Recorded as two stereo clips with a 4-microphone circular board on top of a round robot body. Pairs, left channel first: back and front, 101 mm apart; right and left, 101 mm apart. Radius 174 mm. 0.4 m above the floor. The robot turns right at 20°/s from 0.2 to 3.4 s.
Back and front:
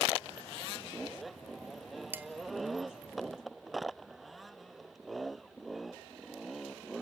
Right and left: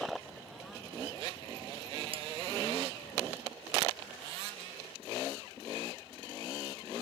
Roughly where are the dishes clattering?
Left.